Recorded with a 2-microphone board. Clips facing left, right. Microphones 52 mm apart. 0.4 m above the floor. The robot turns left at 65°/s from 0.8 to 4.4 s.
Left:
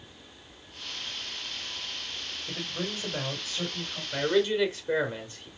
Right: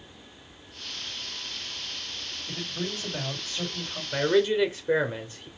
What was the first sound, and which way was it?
A man speaking, 65° left.